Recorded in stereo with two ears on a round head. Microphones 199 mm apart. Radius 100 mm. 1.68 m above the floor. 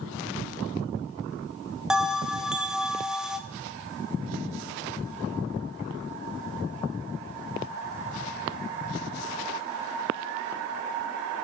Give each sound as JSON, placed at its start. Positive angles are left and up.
{"t": 1.9, "sound": "a bell", "side_deg": -5, "distance_m": 0.8}